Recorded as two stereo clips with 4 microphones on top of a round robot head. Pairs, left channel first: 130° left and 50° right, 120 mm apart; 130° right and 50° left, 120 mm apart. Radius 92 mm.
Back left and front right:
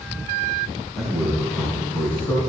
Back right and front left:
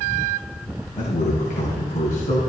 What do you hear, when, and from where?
1.0 s a man speaking: 140° right, 4 m; by 2.4 s 165° right, 3.5 m